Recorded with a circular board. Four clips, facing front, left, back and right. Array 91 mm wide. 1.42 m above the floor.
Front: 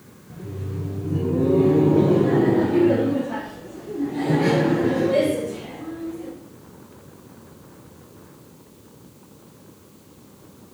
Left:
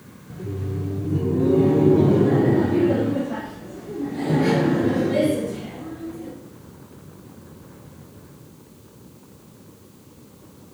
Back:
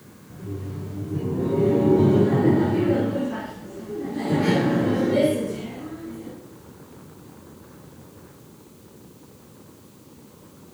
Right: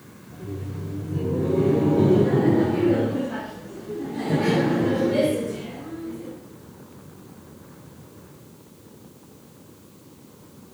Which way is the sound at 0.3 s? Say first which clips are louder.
Left 4 dB, front 1 dB; 70° left.